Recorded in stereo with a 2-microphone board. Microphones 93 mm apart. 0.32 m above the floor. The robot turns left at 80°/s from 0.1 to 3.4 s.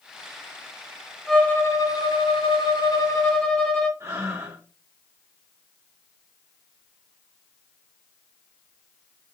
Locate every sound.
1.3 s a violin: straight behind, 0.5 m; by 3.9 s 10° left, 0.5 m
4.0 s breathing: 30° right (ahead or behind), 1.6 m